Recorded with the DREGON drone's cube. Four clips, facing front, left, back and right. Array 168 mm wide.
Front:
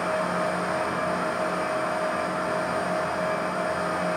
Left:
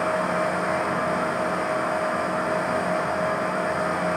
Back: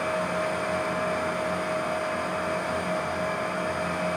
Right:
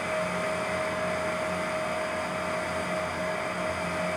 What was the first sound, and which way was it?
Only background noise.